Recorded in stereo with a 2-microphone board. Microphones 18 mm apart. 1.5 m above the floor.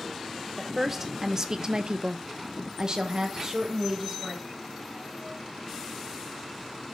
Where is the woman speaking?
10° right (ahead or behind), 1.0 m; by 4.4 s 30° right (ahead or behind), 1.6 m.